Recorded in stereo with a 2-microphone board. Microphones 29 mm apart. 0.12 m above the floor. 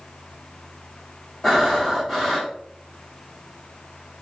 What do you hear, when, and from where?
1.4 s breathing: 15° left (ahead or behind), 2 m